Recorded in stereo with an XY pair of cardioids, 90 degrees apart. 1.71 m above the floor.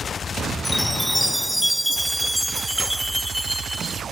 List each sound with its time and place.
0.7 s a chime: straight ahead